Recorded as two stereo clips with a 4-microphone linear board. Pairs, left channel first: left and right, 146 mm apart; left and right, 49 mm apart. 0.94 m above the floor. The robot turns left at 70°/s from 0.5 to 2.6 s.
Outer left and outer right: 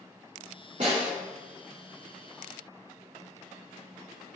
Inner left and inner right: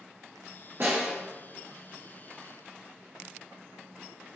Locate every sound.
0.8 s a snare drum: 55° right (ahead or behind), 1.9 m; by 1.1 s 75° right (ahead or behind), 1.9 m